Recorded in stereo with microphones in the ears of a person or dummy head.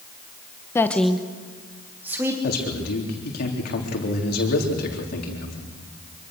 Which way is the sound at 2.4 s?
60° left (ahead or behind).